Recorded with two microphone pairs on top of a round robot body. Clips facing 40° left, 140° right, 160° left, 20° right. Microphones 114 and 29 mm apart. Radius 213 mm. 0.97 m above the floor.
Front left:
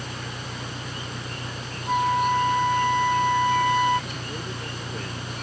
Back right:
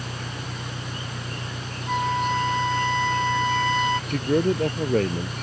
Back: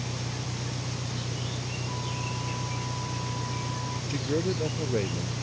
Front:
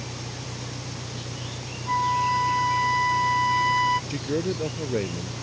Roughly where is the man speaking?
Right.